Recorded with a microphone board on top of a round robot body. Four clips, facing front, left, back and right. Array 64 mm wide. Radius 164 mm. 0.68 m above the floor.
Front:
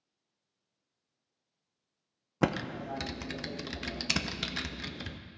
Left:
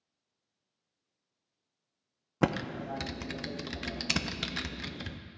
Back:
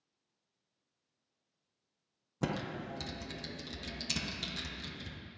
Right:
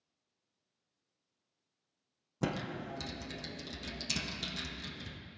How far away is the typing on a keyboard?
About 0.6 m.